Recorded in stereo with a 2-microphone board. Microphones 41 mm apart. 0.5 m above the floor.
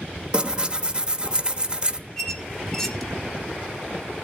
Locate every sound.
0.3 s tearing paper: 25° right (ahead or behind), 1.0 m
2.2 s a squeak: 10° left (ahead or behind), 2 m